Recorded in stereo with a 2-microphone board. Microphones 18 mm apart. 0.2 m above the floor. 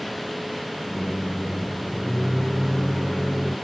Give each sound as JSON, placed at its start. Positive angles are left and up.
{"t": 0.9, "sound": "a microwave", "side_deg": 5, "distance_m": 1.9}